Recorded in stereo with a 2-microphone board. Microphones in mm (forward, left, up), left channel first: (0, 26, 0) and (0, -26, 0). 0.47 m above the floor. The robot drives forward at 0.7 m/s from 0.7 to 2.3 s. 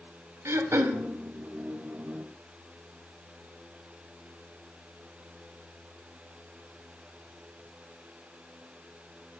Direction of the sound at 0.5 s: 60° right (ahead or behind).